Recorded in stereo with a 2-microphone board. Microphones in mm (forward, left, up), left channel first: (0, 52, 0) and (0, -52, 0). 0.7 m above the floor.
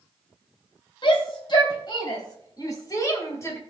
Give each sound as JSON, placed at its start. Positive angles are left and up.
{"t": 1.0, "sound": "a shout", "side_deg": 55, "distance_m": 3.5}